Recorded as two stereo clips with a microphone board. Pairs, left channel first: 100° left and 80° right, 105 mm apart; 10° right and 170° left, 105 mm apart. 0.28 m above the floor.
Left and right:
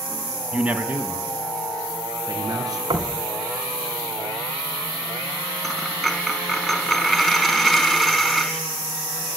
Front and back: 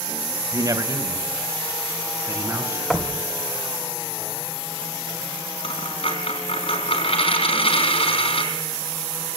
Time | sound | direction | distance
0.5 | a man speaking | 155° right | 1.8 m
2.9 | knocking | 105° right | 2 m
5.6 | a dropped coin | 10° left | 4 m